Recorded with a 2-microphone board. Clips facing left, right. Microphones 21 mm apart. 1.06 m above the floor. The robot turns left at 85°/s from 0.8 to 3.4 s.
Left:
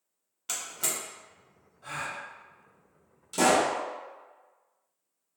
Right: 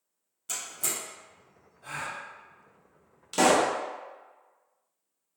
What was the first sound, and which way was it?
A door slam, 45° left (ahead or behind).